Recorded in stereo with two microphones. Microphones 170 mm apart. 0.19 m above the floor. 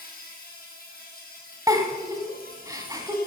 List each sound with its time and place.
0.0 s an insect: 55° left (ahead or behind), 3 m
1.7 s a giggle: 20° right (ahead or behind), 1.4 m